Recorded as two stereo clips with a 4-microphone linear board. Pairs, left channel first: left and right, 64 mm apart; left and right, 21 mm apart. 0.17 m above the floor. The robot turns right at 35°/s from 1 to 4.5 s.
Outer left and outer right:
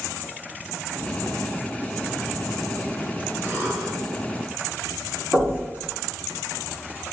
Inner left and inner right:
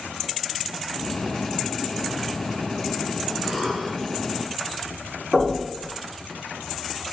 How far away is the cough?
About 1.6 m.